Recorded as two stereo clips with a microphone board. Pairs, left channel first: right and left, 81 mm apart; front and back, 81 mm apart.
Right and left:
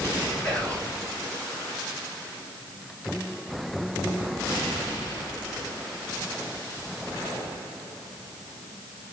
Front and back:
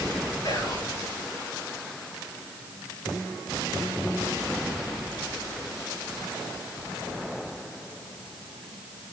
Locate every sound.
0.4 s whispering: 10° right, 3.5 m